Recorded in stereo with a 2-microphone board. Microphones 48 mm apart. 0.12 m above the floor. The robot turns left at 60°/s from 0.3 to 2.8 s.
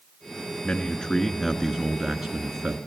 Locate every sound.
0.6 s a man speaking: 20° left (ahead or behind), 1.2 m; by 2.8 s 15° right (ahead or behind), 1.2 m